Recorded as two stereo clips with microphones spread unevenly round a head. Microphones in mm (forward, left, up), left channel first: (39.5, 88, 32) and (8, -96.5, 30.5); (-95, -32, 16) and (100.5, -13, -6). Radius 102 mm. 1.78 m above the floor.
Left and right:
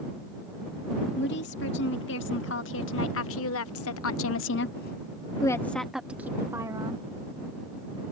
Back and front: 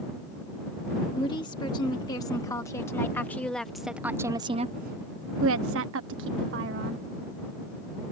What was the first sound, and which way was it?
A woman speaking, 115° left.